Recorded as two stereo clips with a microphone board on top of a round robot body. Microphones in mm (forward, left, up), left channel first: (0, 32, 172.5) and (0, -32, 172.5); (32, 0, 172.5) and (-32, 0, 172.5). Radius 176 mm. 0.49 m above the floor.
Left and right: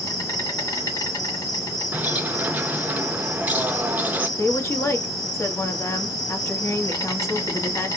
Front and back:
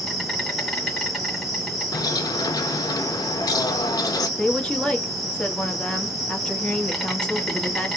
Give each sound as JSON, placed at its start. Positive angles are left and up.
{"t": 0.0, "sound": "an insect", "azimuth_deg": 90, "distance_m": 2.0}
{"t": 1.9, "sound": "a bird", "azimuth_deg": -25, "distance_m": 0.6}
{"t": 4.4, "sound": "a woman speaking", "azimuth_deg": 75, "distance_m": 1.5}